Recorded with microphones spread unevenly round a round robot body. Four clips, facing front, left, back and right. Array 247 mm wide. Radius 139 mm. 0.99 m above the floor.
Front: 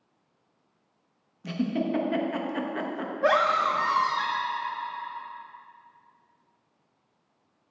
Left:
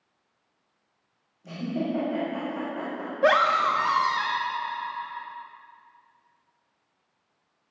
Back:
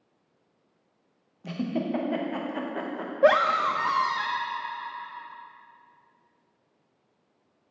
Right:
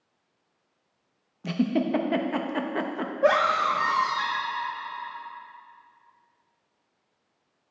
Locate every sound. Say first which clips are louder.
1.4 s a giggle: right 5 dB, front 2 dB; 85° right, 1.0 m
3.2 s a scream: left 1 dB, back 2 dB; 175° right, 1.6 m